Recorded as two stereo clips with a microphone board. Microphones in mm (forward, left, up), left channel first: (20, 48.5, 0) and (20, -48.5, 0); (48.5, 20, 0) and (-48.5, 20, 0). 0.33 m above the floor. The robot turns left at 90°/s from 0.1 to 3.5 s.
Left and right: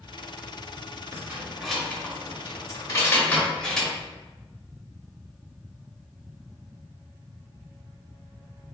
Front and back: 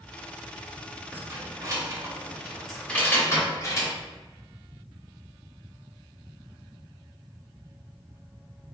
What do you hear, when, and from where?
1.1 s keys jangling: 130° right, 0.6 m; by 3.9 s 15° left, 0.6 m